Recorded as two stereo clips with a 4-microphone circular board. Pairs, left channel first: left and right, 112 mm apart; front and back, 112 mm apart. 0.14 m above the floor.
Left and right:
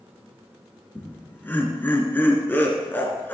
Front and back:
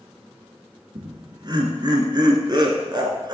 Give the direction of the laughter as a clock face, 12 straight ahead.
7 o'clock.